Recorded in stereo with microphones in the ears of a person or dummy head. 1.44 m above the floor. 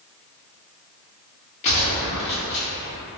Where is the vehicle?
I don't hear a vehicle.